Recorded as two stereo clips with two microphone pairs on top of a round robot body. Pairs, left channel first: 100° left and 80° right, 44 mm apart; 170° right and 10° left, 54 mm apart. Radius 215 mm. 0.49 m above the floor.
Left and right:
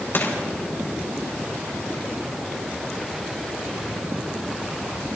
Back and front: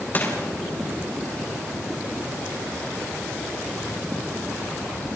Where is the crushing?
135° left, 4 m.